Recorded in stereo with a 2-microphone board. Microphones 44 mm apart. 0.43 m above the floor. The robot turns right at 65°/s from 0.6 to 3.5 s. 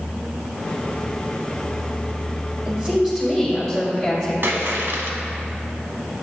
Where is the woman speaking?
50° right, 2.0 m; by 4.3 s 5° left, 2.0 m.